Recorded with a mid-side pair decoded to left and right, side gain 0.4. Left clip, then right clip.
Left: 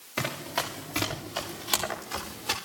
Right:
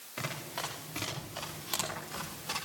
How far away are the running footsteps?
About 7.5 m.